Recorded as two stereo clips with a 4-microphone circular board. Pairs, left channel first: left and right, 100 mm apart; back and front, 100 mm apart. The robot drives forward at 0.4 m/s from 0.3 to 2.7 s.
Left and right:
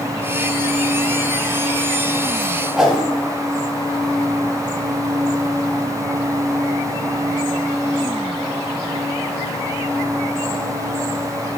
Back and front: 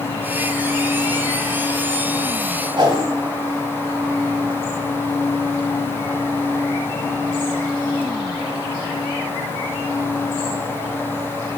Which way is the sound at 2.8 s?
Straight ahead.